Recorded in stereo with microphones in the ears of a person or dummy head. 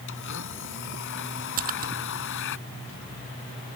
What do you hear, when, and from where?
0.1 s a blender: 60° left (ahead or behind)
1.6 s a splash: 40° right (ahead or behind)